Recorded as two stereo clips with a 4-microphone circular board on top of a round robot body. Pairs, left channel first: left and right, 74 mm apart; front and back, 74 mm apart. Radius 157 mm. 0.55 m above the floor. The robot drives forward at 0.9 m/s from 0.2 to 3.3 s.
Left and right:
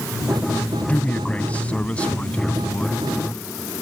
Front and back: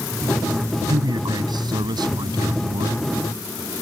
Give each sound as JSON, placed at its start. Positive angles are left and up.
{"t": 0.9, "sound": "a man speaking", "azimuth_deg": 160}